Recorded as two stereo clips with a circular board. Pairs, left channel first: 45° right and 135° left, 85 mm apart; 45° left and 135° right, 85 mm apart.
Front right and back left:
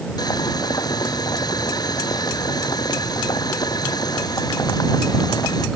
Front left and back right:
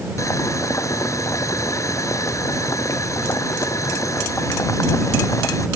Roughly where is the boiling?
Ahead.